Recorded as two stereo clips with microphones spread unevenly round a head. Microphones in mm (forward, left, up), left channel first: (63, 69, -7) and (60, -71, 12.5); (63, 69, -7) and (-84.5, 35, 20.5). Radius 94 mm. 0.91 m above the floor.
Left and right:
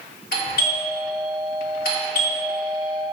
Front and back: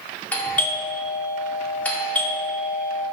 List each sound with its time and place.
0.3 s a doorbell: 90° left, 2.5 m